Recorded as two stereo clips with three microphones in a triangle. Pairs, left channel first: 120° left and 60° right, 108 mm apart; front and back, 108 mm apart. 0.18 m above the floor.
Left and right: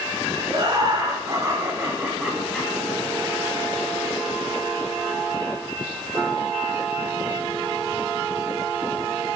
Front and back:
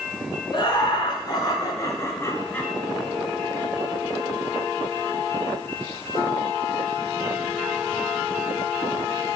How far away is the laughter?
About 2 m.